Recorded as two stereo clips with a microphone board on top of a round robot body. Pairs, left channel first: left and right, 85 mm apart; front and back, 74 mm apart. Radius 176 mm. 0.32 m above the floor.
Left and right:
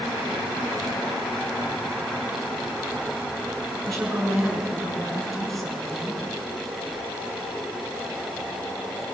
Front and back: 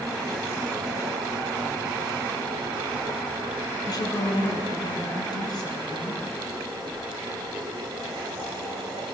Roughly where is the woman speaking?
Ahead.